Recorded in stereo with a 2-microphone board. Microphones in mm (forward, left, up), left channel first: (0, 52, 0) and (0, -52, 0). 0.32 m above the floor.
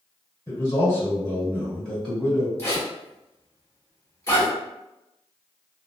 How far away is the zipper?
About 1.5 m.